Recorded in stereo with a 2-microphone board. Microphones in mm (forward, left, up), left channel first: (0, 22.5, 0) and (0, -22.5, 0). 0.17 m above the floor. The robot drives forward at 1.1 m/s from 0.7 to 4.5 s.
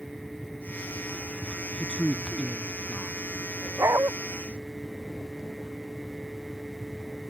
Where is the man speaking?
30° left (ahead or behind); by 3.1 s 25° left (ahead or behind).